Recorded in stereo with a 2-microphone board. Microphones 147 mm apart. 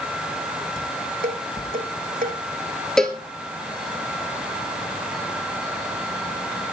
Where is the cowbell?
5° left (ahead or behind), 2 m.